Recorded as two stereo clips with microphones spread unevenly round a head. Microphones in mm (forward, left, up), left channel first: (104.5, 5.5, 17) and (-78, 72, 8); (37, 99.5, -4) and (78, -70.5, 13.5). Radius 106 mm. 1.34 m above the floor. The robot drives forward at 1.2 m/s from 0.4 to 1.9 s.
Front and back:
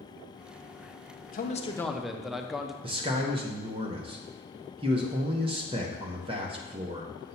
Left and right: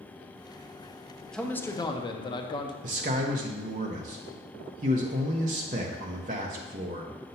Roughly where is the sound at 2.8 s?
Behind right.